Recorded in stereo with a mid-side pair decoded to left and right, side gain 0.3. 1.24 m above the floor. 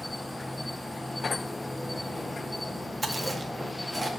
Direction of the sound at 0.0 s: 25° left.